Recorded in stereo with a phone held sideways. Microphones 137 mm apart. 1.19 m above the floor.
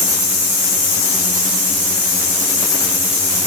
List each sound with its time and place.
Only background noise.